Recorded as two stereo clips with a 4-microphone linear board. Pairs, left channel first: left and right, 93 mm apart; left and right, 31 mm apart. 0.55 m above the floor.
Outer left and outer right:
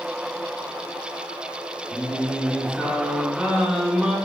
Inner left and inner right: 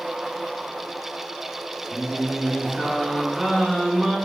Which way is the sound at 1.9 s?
10° right (ahead or behind).